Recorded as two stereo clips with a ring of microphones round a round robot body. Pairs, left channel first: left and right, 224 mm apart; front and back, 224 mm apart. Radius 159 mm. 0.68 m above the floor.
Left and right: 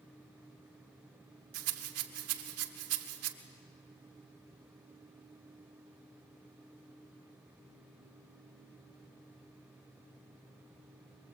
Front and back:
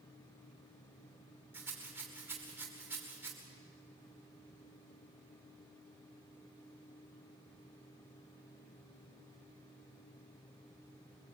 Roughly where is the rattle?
Right.